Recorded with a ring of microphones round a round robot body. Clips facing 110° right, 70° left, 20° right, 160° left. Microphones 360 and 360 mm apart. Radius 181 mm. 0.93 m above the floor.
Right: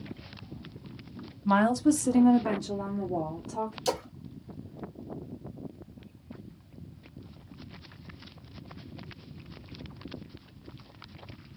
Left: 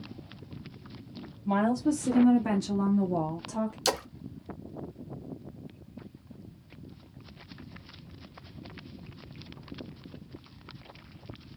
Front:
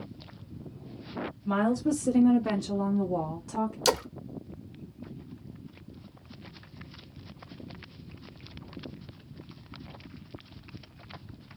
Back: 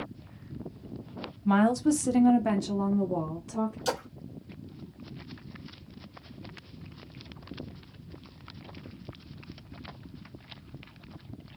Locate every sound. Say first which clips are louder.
1.4 s a woman speaking: right 3 dB, back 3 dB; 145° right, 0.7 m; by 3.8 s 50° left, 0.8 m
3.9 s a splash: right 1 dB, front 5 dB; 15° left, 0.5 m